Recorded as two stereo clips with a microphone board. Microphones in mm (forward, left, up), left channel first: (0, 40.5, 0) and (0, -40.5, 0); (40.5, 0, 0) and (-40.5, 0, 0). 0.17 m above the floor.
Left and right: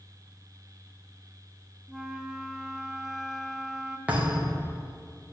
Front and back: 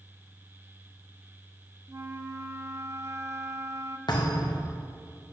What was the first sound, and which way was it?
A flute, 170° right.